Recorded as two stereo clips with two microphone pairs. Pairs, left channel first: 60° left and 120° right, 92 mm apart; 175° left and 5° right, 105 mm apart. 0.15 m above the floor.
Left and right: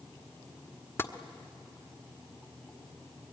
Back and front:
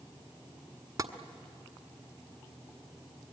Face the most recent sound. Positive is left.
turn(degrees=15)